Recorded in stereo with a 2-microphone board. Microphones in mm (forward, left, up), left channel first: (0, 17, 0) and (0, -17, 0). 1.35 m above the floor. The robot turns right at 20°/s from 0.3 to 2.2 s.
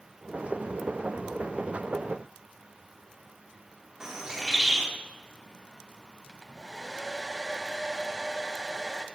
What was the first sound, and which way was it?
A bird, 15° right (ahead or behind).